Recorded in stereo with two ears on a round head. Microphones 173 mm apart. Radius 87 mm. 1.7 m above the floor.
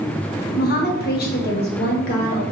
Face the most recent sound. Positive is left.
turn(degrees=50)  # may be behind; listen again after turning